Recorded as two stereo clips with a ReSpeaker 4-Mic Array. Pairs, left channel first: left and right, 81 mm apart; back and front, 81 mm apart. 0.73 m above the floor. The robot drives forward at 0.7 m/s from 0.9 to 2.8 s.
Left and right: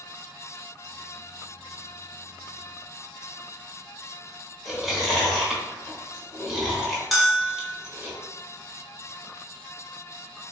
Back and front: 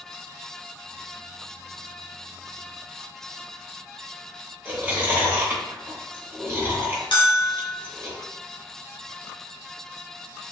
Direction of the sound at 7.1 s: Straight behind.